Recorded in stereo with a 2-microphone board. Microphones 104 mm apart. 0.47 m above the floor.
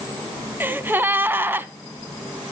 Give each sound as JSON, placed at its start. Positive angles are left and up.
{"t": 0.6, "sound": "a gasp", "side_deg": -20, "distance_m": 0.5}